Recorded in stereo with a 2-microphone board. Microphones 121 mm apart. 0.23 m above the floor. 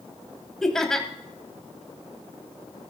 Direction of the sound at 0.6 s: 5° left (ahead or behind).